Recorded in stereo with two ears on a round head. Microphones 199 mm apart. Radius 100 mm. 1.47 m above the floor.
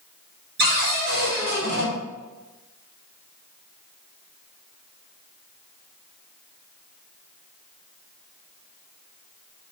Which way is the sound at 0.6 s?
45° right (ahead or behind).